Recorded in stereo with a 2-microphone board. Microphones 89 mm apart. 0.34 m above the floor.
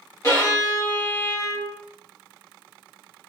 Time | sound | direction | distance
0.2 | a violin | 35° left (ahead or behind) | 1.6 m